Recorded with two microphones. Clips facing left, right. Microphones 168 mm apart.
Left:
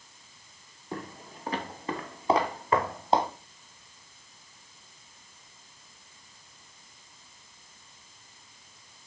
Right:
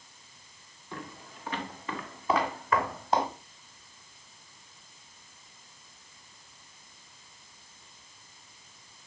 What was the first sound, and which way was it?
Footsteps, 40° left (ahead or behind).